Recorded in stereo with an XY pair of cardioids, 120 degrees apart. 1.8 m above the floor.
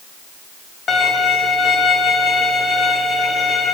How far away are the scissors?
No scissors in this recording.